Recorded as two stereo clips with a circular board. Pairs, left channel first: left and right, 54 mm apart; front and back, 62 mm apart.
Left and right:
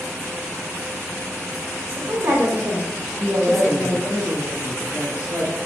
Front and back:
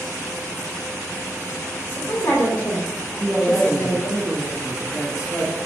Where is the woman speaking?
40° right, 1.9 m; by 4.2 s 10° left, 1.8 m.